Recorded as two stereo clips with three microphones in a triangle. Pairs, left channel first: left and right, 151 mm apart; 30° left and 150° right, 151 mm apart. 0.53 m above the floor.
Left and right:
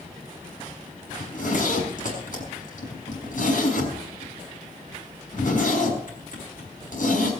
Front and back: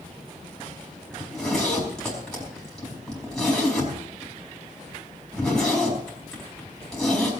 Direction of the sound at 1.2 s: 115° left.